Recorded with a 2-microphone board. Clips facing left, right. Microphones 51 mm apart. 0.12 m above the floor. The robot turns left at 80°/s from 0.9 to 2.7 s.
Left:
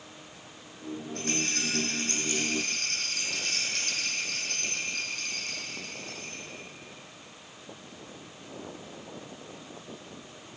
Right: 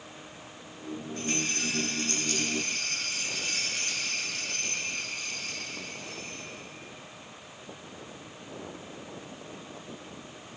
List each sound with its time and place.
1.1 s a rattle: 115° left, 3.5 m; by 6.4 s 10° right, 3.5 m